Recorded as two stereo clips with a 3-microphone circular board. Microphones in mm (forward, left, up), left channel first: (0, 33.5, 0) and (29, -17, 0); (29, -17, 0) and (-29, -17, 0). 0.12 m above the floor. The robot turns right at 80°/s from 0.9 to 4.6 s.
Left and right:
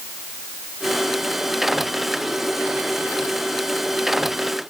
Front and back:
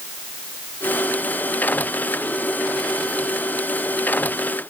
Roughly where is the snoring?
I don't hear snoring.